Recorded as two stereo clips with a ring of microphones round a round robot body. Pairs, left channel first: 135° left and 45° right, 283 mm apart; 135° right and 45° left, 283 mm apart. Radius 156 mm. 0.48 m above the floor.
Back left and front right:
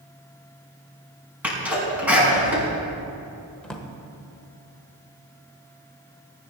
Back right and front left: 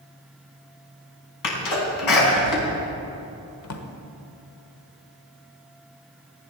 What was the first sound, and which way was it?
A sneeze, 130° right.